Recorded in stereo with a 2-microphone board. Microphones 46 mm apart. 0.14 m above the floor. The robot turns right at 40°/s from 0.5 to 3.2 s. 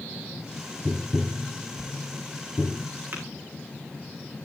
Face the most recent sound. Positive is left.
turn(degrees=-50)  # may be behind; listen again after turning